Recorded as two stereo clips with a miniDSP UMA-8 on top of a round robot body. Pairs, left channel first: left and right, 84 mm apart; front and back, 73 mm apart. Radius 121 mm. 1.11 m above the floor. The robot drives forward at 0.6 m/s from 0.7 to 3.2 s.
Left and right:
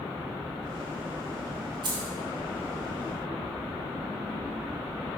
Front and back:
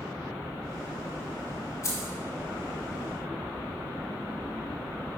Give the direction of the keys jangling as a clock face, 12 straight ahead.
2 o'clock.